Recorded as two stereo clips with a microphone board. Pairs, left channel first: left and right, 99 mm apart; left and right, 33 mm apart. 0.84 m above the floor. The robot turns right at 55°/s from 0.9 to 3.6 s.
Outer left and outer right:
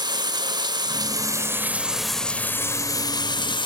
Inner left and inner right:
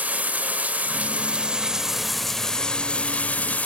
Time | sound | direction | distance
0.0 | running water | 65° right | 0.8 m